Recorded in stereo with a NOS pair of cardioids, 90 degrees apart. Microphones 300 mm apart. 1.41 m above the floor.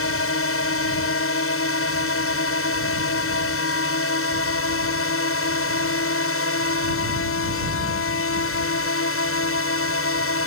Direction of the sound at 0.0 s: 50° left.